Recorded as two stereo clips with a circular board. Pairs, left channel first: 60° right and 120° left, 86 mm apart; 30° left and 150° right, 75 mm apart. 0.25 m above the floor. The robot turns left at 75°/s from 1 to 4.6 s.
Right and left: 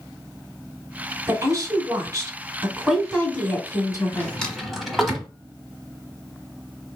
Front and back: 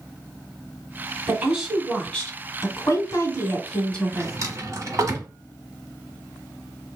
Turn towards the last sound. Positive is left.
turn(degrees=-150)